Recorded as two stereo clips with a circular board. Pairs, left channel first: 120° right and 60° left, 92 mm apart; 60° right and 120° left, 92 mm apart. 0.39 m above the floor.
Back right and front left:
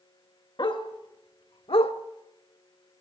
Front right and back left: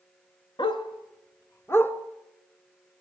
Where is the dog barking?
90° right, 1.3 m; by 1.9 s 130° right, 1.1 m.